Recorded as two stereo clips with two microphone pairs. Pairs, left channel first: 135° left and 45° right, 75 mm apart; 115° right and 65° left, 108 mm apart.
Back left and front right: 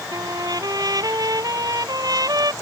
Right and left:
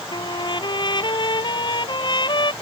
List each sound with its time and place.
0.1 s a trumpet: 75° right